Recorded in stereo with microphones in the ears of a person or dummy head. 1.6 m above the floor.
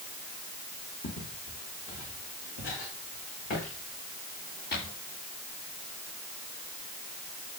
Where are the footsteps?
55° left (ahead or behind), 5.5 m; by 4.9 s 50° left (ahead or behind), 10 m.